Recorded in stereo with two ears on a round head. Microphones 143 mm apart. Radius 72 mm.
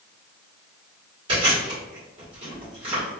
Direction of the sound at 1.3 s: 30° right (ahead or behind).